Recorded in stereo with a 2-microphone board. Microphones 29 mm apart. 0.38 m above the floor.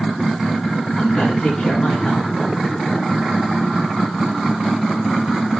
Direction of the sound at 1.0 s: 35° left (ahead or behind).